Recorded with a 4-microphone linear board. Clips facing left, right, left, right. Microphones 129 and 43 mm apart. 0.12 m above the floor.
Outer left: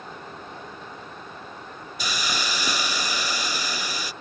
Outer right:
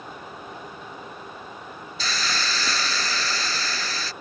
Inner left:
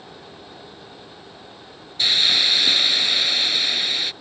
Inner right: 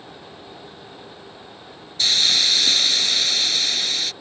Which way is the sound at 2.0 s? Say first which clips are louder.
Even, inner left 1 dB; 15° left (ahead or behind).